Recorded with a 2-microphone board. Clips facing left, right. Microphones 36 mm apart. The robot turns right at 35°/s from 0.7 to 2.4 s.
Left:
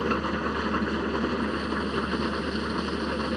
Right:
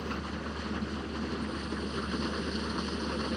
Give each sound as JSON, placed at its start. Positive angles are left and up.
{"t": 0.0, "sound": "an engine running", "azimuth_deg": 90}